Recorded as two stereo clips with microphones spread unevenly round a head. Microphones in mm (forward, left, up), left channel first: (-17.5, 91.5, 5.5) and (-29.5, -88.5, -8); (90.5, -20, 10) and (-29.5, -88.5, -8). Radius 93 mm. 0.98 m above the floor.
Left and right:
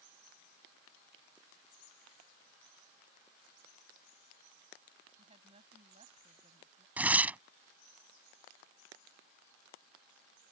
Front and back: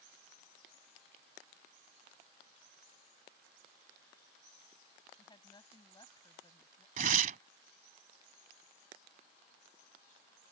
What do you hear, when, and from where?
5.1 s a woman speaking: 30° right
7.0 s tearing paper: 175° right